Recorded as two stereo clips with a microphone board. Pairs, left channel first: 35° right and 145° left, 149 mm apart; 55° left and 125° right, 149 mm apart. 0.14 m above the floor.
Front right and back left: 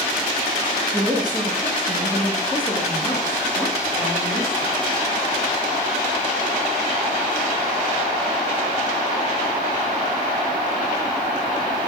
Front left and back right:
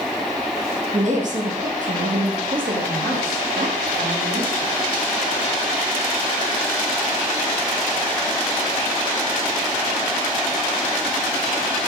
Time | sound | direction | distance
0.9 | a woman speaking | 155° right | 3.5 m